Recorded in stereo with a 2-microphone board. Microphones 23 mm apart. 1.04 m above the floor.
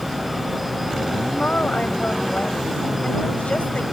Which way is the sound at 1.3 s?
80° left.